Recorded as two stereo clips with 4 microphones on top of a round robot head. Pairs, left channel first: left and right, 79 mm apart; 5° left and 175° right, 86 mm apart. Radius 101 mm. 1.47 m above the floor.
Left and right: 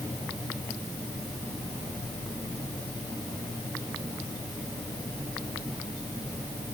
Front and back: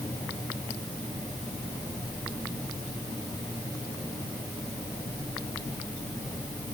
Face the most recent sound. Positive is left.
No sound to turn to.